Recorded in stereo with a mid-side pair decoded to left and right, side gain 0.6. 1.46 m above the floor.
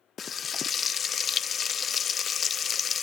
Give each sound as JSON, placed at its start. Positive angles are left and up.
{"t": 0.2, "sound": "frying", "azimuth_deg": 40, "distance_m": 0.5}